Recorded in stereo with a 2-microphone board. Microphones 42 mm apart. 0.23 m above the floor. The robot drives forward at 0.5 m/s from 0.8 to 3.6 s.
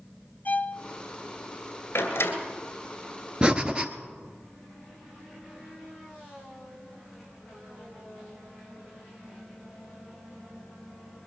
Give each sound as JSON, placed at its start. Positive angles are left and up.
{"t": 0.5, "sound": "a violin", "side_deg": 45, "distance_m": 0.6}
{"t": 1.9, "sound": "a door slam", "side_deg": 70, "distance_m": 2.0}
{"t": 3.4, "sound": "breathing", "side_deg": -20, "distance_m": 0.8}